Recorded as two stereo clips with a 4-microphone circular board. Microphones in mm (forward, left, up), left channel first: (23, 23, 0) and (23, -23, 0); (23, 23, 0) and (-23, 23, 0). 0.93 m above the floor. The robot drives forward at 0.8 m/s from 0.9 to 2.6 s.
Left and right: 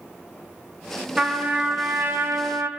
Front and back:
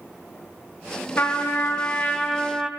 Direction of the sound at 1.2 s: 25° right.